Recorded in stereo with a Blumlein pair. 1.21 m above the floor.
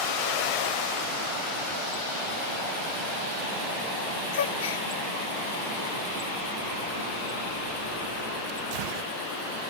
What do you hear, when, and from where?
4.3 s a gasp: 60° left, 0.5 m